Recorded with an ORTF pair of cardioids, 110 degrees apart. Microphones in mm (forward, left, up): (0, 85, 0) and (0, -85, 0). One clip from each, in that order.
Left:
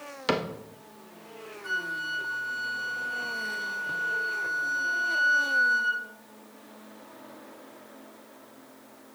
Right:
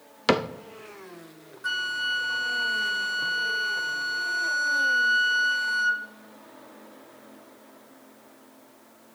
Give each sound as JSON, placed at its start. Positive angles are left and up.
{"t": 0.3, "sound": "a cupboard door", "azimuth_deg": -25, "distance_m": 0.5}
{"t": 1.6, "sound": "a flute", "azimuth_deg": -55, "distance_m": 1.0}